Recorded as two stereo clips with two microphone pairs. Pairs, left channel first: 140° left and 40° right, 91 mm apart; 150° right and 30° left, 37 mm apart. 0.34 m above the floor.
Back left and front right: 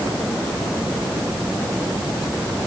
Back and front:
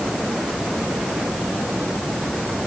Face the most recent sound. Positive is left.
No sound to turn to.